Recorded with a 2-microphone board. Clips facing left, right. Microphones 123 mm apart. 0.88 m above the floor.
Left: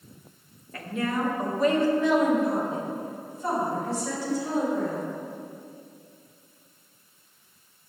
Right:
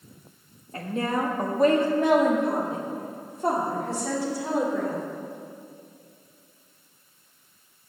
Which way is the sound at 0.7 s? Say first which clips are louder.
Right 2 dB; 30° right (ahead or behind).